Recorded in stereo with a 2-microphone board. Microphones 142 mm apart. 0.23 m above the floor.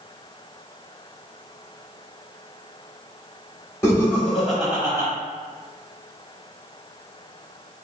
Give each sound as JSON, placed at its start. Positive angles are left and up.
{"t": 3.8, "sound": "laughter", "side_deg": 20, "distance_m": 1.3}